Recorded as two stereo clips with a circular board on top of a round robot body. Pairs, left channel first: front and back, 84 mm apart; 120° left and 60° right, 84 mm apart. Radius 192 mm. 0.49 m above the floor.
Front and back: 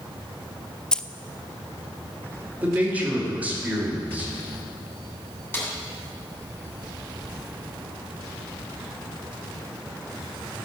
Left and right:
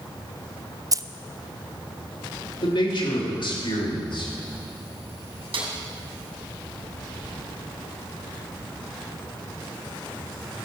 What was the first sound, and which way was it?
Keys jangling, 75° right.